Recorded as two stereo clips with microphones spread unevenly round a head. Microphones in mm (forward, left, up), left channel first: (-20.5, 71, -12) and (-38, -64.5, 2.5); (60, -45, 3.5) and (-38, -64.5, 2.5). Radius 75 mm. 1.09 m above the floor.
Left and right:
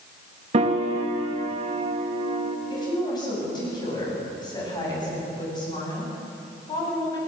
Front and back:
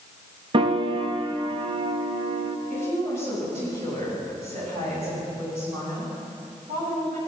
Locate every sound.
0.5 s a piano: 140° right, 1.6 m
2.7 s a woman speaking: 140° left, 8.5 m